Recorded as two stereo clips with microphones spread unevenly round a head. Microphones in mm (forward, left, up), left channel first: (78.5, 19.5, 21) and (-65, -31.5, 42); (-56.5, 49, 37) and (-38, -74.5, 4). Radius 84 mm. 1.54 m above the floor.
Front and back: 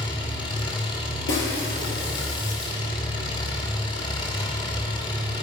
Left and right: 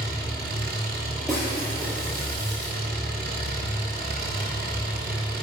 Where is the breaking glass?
15° left, 5 m.